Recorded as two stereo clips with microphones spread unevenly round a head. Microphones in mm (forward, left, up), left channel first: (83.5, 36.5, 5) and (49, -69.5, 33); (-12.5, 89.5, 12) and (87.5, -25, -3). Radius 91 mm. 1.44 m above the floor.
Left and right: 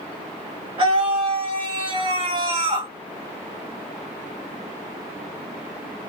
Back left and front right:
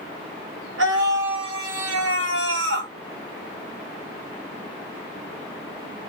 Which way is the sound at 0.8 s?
60° right.